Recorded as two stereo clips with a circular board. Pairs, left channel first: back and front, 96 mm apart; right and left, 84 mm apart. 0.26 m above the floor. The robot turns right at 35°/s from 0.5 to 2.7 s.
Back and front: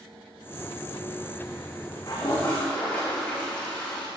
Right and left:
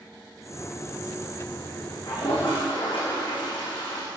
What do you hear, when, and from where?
2.1 s a toilet flushing: 130° right, 9 m; by 4.1 s 105° right, 9 m